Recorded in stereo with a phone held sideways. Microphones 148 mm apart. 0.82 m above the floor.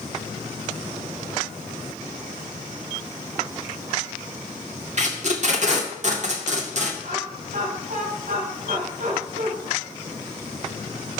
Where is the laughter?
75° right (ahead or behind), 7.5 m.